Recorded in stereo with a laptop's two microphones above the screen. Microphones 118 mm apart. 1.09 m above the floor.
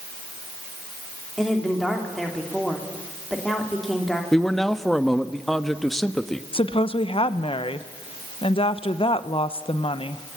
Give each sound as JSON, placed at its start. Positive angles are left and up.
{"t": 1.4, "sound": "a woman speaking", "side_deg": 0, "distance_m": 2.5}
{"t": 4.3, "sound": "a man speaking", "side_deg": 5, "distance_m": 1.3}
{"t": 6.5, "sound": "a woman speaking", "side_deg": 50, "distance_m": 1.0}